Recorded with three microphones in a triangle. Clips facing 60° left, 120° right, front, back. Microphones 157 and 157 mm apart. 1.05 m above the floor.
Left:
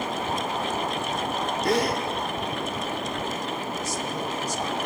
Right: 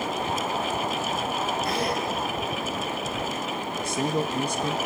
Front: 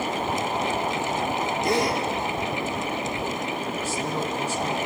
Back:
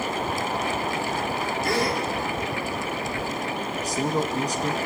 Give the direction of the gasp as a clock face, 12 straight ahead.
10 o'clock.